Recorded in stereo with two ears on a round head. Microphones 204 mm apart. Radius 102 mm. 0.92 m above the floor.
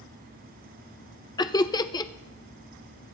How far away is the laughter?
About 0.5 m.